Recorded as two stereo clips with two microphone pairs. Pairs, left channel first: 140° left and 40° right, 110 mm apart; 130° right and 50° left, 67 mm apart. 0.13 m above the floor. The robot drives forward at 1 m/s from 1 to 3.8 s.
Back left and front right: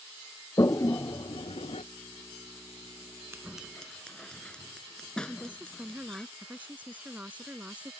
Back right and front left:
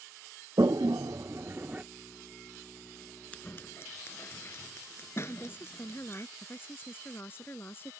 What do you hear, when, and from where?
0.6 s a toilet flushing: 80° left; by 1.8 s 125° left
3.3 s scissors: 80° right; by 6.3 s 140° right
5.3 s a woman speaking: 110° right